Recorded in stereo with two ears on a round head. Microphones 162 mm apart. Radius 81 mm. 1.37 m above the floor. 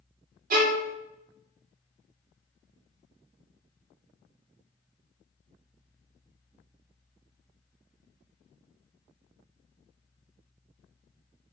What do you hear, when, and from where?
0.5 s a violin: 50° right (ahead or behind), 0.6 m